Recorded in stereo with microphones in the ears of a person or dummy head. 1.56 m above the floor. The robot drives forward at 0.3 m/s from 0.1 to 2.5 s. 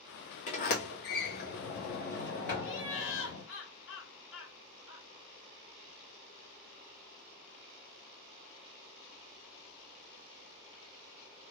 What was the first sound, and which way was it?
A sliding door, 45° left (ahead or behind).